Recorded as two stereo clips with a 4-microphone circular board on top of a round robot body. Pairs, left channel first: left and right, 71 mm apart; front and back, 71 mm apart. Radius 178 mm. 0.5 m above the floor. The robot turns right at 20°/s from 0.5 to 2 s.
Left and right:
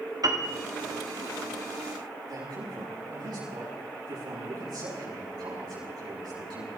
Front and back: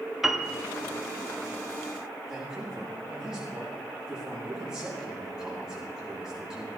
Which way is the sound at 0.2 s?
95° right.